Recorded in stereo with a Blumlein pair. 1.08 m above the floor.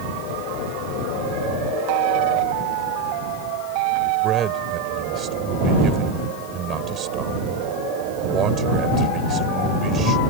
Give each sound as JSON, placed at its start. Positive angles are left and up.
{"t": 4.2, "sound": "a man speaking", "azimuth_deg": -25}